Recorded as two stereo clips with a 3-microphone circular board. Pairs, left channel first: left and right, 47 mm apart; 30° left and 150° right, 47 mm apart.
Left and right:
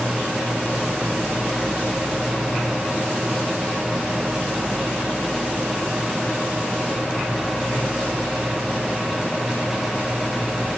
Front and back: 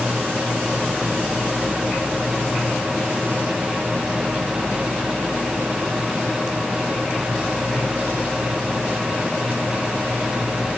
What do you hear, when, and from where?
Only background noise.